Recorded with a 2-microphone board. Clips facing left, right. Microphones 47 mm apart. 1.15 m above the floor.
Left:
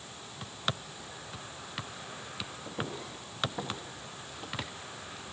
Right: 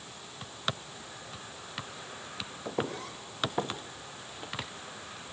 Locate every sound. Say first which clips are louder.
2.6 s footsteps: right 6 dB; 65° right (ahead or behind), 3 m; by 4.7 s 5° left (ahead or behind), 1.2 m